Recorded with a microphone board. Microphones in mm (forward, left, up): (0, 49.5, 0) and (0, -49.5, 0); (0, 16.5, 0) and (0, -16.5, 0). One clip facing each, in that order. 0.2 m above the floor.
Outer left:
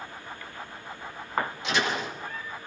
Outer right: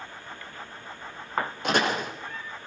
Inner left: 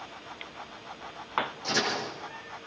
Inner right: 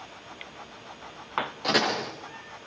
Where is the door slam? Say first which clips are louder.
Outer right 7 dB, inner right 8 dB; 50° right (ahead or behind), 6 m.